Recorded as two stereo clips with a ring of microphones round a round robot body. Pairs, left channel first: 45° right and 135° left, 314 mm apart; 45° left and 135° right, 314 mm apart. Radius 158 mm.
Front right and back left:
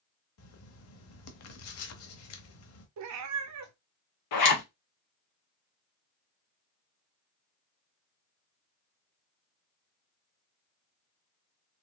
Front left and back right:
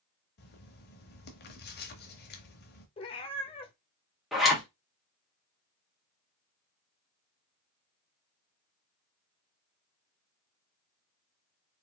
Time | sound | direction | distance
0.4 | writing | 10° right | 0.8 m
3.0 | a cat meowing | 115° left | 0.6 m
4.3 | a zipper | 45° right | 1.5 m